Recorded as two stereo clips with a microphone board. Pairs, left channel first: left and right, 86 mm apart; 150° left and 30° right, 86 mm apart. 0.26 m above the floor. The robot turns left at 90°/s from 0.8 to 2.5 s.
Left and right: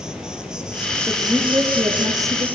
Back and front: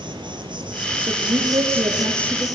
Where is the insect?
10° right, 4 m; by 2.6 s 160° right, 4 m.